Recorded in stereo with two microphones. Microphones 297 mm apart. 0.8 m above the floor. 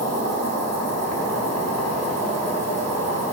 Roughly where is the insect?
Left.